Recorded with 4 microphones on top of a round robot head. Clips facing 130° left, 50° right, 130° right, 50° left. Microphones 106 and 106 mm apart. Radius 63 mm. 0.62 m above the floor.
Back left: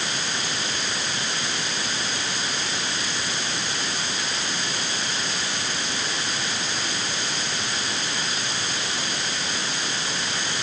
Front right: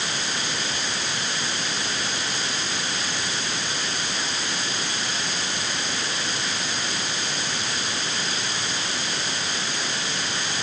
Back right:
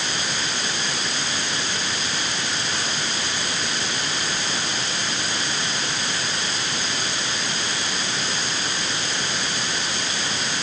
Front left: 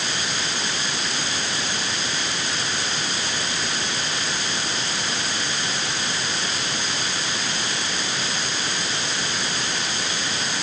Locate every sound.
Only background noise.